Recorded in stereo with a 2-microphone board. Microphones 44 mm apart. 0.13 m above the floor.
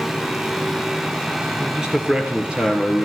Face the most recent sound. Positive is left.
turn(degrees=-25)  # may be behind; listen again after turning